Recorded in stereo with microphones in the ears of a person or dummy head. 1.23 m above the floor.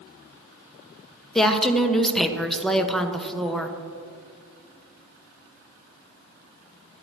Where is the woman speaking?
5° left (ahead or behind), 0.9 m.